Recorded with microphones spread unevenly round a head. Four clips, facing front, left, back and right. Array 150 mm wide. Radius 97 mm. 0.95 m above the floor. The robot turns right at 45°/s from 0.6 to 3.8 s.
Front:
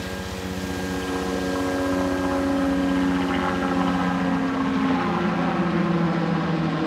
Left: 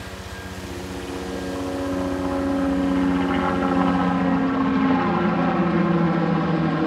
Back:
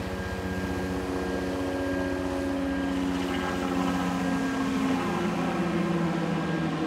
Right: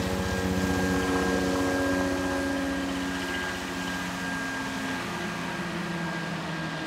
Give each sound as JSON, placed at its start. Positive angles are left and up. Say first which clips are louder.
{"t": 0.0, "sound": "a helicopter", "louder": "right 7 dB, front 2 dB", "azimuth_deg": -60}